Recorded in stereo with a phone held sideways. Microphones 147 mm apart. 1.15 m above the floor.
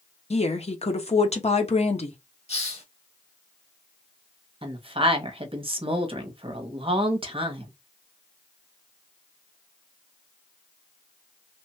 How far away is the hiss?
About 0.9 m.